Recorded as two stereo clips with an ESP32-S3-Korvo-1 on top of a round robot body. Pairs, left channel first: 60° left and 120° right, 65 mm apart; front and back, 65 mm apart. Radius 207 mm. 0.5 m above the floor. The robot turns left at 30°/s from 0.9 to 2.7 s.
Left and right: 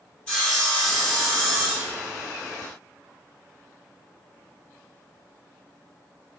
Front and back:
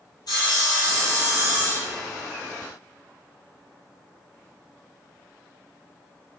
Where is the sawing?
15° right, 2.5 m; by 2.2 s 55° right, 2.5 m.